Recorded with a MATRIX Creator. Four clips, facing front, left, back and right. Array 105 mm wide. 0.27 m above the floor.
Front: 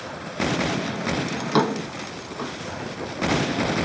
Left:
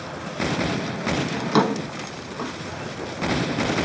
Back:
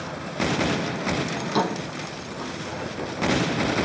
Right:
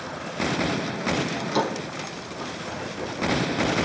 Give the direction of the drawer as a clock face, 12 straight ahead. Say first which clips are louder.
Left 5 dB, front 6 dB; 10 o'clock.